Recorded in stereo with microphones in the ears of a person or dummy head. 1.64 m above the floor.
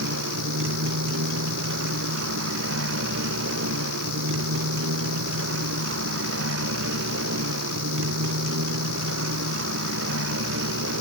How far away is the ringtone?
I don't hear a ringtone.